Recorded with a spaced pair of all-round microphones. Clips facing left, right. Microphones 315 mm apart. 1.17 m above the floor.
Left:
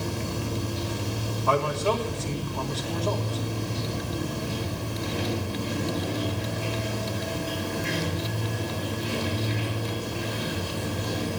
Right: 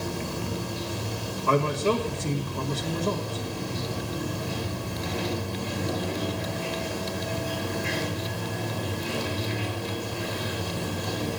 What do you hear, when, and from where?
0.0 s running water: 35° left (ahead or behind), 2.5 m
1.5 s a man speaking: 30° right (ahead or behind), 1.7 m